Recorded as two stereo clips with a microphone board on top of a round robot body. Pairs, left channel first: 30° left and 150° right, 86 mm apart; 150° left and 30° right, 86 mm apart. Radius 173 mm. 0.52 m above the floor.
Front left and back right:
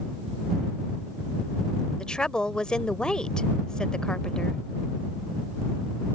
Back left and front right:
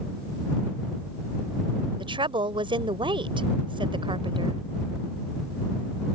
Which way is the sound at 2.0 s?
50° right.